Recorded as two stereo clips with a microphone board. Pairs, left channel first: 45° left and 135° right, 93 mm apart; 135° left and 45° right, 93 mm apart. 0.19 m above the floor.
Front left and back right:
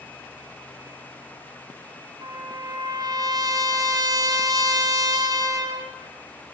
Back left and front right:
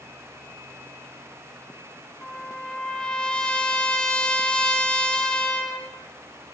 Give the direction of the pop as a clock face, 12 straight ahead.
No pop in this recording.